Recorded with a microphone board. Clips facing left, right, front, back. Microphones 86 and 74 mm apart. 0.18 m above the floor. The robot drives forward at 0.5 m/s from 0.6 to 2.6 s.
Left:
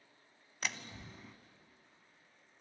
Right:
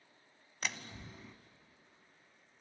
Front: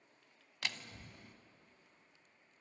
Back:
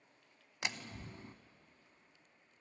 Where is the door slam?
175° left, 0.9 m; by 1.4 s straight behind, 1.1 m.